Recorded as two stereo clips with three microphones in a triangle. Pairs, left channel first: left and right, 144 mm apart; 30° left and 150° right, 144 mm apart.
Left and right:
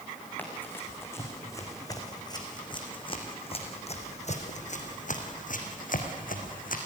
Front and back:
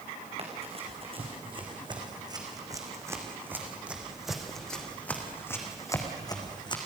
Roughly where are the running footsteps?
Behind.